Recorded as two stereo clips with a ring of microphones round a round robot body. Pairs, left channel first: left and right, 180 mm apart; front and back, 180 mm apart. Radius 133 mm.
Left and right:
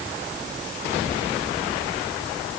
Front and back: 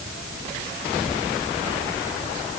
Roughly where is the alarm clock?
I don't hear an alarm clock.